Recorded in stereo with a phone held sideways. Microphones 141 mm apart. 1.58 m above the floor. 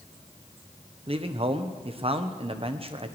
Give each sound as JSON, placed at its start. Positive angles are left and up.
{"t": 1.1, "sound": "a man speaking", "side_deg": -40, "distance_m": 1.0}